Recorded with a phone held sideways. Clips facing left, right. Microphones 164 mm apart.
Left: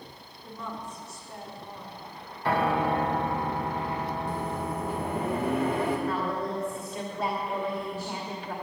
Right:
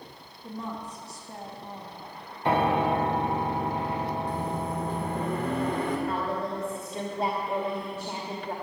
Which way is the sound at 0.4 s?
35° right (ahead or behind).